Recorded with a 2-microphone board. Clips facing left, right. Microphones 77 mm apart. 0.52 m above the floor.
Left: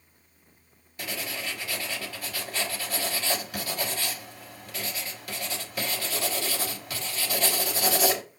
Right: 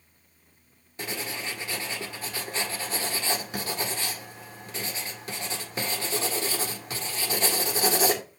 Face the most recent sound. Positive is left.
turn(degrees=-30)  # may be behind; listen again after turning